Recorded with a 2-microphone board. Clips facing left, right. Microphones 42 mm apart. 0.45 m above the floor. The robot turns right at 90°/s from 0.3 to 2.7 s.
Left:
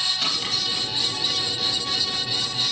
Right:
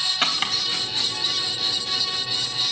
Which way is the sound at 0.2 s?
45° right (ahead or behind).